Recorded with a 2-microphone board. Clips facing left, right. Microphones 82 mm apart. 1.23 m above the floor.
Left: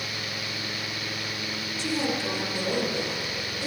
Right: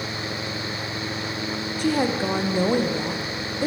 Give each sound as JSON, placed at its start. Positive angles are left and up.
{"t": 1.8, "sound": "a woman speaking", "side_deg": -50, "distance_m": 0.7}